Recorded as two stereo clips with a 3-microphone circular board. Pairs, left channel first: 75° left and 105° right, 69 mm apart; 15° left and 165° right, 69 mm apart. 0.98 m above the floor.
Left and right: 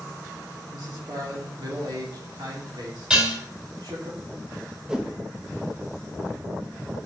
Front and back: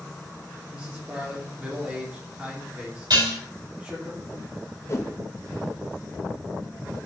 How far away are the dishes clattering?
About 3.5 m.